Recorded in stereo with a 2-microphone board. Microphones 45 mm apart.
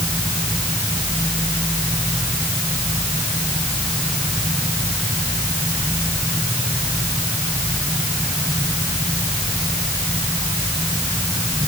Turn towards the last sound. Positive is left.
No sound to turn to.